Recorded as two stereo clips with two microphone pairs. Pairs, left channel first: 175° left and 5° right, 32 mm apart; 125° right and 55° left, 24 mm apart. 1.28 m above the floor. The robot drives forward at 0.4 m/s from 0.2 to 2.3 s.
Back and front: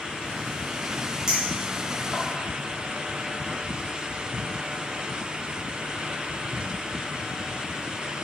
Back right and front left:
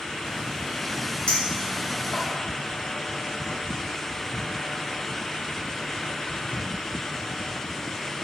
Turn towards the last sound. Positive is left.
turn(degrees=-110)